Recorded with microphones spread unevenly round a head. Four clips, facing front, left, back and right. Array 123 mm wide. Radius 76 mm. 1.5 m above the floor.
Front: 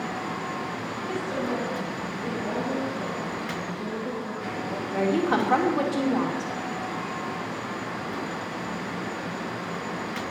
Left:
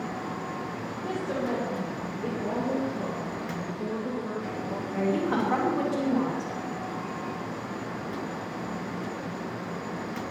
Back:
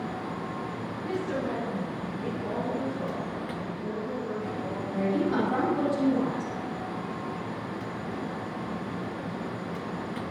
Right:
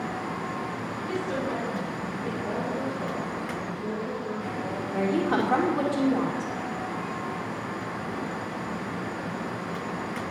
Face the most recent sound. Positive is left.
turn(degrees=-15)